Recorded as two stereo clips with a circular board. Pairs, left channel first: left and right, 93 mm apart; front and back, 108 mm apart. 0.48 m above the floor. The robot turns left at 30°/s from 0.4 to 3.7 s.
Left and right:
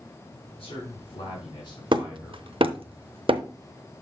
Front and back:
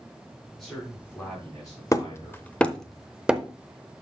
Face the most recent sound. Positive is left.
turn(degrees=-110)